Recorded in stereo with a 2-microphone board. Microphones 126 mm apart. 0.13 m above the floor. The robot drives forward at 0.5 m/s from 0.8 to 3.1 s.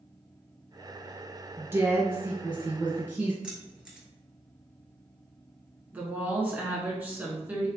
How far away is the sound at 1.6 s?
About 1.3 m.